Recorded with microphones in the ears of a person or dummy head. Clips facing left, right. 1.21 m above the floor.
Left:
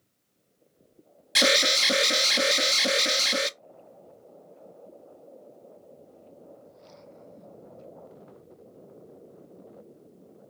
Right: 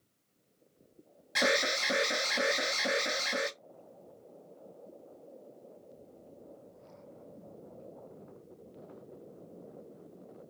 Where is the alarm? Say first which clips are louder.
Left 5 dB; 40° left (ahead or behind), 0.6 m.